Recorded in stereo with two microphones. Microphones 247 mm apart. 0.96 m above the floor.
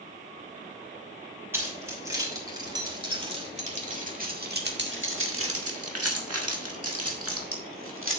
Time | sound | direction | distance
1.5 | keys jangling | 10° right (ahead or behind) | 3 m